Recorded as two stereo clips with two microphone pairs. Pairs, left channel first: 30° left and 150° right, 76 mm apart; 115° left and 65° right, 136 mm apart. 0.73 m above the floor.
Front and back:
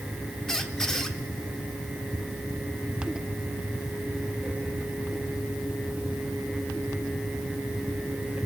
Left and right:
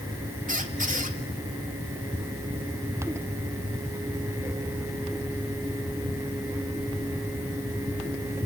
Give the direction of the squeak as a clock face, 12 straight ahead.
2 o'clock.